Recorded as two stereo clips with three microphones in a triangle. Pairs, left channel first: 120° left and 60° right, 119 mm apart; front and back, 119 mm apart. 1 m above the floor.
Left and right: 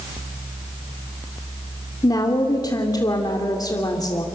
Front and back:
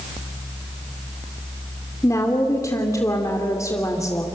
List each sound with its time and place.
2.0 s a woman speaking: 65° left, 2.5 m